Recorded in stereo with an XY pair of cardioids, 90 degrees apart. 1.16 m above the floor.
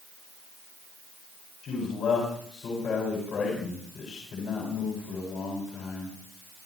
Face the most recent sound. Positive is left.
turn(degrees=65)